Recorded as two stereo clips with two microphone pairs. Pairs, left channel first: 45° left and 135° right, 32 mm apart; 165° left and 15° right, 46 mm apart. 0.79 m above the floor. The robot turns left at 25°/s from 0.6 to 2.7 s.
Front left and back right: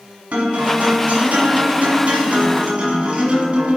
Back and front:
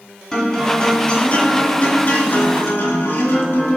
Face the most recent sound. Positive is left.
turn(degrees=-175)